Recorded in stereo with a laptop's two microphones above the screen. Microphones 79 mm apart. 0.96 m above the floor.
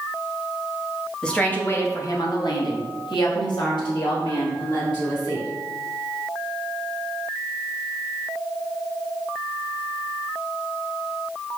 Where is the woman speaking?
10° left (ahead or behind), 1.2 m; by 5.5 s 65° left (ahead or behind), 3.5 m.